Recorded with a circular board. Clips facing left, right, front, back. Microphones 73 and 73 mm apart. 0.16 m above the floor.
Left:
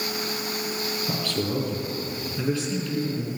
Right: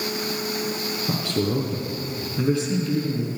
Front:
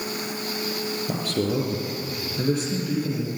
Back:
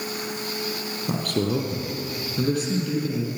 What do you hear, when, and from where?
1.1 s a man speaking: 160° right, 4.5 m